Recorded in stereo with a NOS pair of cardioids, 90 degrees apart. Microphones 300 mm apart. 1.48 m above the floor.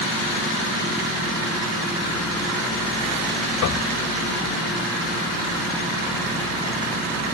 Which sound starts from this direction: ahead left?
Knocking, at 3.6 s.